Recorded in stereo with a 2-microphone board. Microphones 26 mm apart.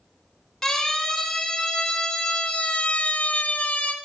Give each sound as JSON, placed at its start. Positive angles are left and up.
{"t": 0.6, "sound": "a siren", "side_deg": 15, "distance_m": 4.0}